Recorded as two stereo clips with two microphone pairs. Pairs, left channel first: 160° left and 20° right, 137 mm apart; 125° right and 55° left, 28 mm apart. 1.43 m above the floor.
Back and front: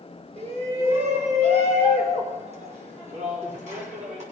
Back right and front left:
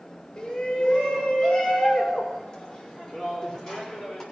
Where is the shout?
60° right, 5 m; by 4.2 s 50° right, 6.5 m.